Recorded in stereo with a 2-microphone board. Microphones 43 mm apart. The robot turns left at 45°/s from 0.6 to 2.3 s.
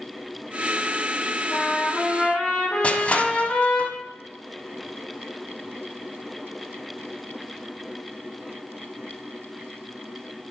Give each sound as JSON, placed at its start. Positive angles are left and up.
{"t": 1.5, "sound": "a trumpet", "azimuth_deg": 70, "distance_m": 4.5}
{"t": 2.8, "sound": "crushing", "side_deg": 30, "distance_m": 0.6}